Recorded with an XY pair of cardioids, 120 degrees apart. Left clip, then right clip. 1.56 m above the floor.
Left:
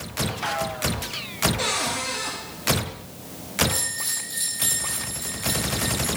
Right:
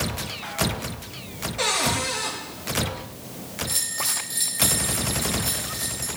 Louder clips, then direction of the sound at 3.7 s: Right 1 dB; 30° right.